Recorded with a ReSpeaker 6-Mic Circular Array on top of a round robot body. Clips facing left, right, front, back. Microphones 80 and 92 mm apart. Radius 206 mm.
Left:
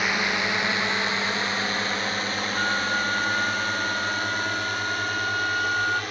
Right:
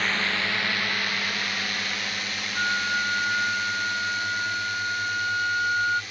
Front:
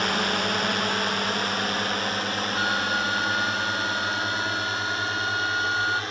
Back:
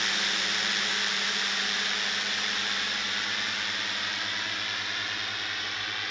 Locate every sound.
0.0 s a drone: 15° left; by 6.1 s 55° left
2.5 s a flute: 5° right